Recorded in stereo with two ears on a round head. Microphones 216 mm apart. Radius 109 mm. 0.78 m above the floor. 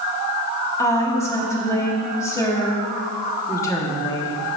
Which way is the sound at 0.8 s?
15° left (ahead or behind).